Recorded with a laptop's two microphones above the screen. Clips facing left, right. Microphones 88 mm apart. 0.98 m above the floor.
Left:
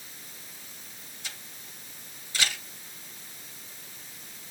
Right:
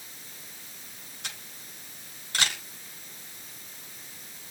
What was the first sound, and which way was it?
A camera shutter, 60° right (ahead or behind).